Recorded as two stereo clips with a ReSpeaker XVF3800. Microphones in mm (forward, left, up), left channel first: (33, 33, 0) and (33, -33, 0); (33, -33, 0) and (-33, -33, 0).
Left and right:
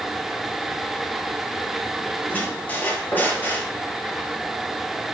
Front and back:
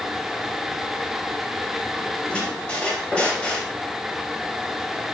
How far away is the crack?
I don't hear a crack.